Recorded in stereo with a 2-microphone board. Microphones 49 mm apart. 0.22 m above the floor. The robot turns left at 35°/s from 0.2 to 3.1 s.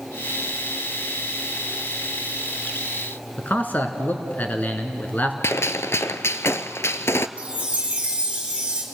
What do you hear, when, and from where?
3.4 s a man speaking: 35° left (ahead or behind), 2.5 m
5.4 s a gunshot: 65° left (ahead or behind), 0.6 m
7.4 s a chime: 20° right (ahead or behind), 4 m